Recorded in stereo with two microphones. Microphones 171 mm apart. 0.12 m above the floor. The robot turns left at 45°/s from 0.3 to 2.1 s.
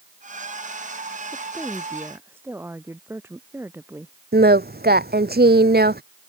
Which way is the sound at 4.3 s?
75° right (ahead or behind).